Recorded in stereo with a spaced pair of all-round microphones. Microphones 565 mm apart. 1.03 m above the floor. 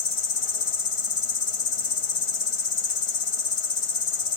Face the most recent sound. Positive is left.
turn(degrees=65)  # may be behind; listen again after turning